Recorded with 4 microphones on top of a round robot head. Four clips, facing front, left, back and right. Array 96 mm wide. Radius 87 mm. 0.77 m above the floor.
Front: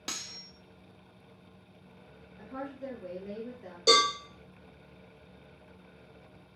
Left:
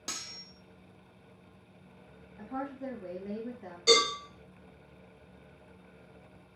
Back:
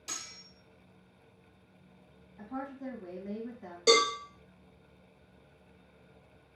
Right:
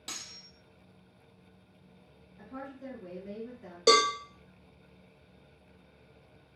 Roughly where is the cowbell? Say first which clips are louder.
Right 3 dB, even; right.